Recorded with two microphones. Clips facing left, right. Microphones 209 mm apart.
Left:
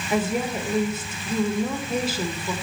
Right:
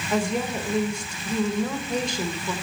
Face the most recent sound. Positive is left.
turn(degrees=5)  # may be behind; listen again after turning